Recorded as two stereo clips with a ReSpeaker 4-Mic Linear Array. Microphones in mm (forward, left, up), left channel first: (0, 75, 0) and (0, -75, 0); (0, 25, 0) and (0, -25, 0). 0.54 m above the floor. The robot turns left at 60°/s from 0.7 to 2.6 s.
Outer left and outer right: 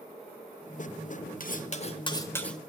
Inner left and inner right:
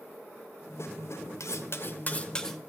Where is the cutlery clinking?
75° left, 0.8 m; by 2.6 s straight ahead, 0.8 m.